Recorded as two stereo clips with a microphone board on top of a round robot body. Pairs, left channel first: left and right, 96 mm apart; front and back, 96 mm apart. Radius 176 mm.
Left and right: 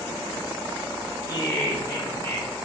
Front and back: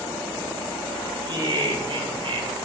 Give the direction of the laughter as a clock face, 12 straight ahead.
7 o'clock.